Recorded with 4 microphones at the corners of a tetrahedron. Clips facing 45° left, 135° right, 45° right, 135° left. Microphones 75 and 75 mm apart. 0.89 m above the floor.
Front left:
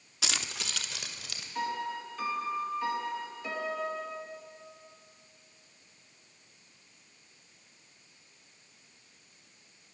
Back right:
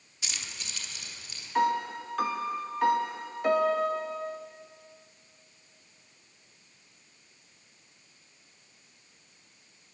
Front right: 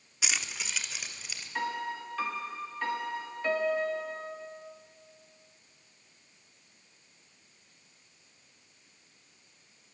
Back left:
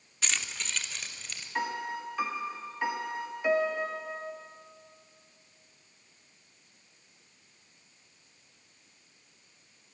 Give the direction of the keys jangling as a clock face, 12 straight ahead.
11 o'clock.